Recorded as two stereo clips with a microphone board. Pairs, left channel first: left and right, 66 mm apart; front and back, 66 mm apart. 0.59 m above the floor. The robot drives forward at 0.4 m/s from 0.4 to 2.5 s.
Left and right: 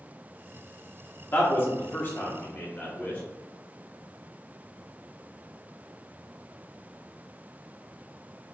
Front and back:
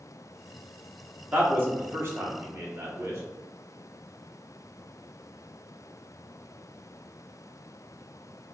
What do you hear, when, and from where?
1.3 s a man speaking: 130° left, 1.1 m; by 3.2 s 150° left, 1.4 m